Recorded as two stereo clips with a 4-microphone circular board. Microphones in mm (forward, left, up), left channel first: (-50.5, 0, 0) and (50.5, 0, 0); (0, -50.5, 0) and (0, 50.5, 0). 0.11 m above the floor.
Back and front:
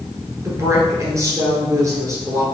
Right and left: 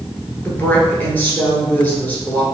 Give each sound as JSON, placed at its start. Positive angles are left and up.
{"t": 0.5, "sound": "a woman speaking", "azimuth_deg": -30, "distance_m": 1.4}